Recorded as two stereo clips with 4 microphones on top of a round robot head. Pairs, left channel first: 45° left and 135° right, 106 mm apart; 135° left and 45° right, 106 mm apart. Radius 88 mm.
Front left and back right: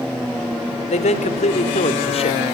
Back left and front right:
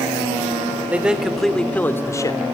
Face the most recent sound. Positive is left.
turn(degrees=85)